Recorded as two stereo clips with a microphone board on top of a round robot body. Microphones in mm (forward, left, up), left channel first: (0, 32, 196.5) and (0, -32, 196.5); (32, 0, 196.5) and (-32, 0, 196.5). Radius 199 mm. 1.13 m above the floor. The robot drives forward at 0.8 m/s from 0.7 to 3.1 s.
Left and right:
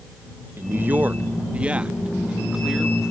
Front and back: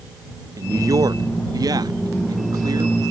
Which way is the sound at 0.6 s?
145° right.